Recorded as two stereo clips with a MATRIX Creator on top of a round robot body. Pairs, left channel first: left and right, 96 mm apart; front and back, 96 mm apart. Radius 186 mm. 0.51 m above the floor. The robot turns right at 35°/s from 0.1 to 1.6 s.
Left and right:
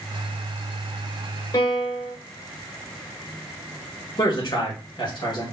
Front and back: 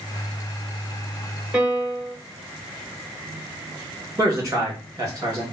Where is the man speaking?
125° left, 2 m.